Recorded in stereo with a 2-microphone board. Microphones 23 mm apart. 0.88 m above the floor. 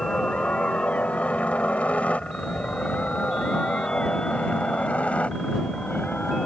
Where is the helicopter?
70° left (ahead or behind); by 6.5 s 65° left (ahead or behind).